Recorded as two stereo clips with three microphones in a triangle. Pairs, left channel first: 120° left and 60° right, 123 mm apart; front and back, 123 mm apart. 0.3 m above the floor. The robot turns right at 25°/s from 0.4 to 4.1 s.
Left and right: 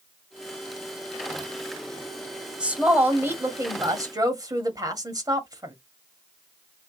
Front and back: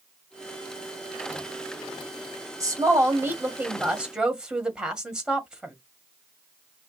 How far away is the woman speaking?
About 1.4 m.